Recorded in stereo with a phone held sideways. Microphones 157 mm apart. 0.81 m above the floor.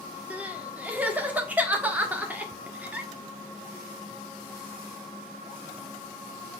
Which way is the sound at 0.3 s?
10° right (ahead or behind).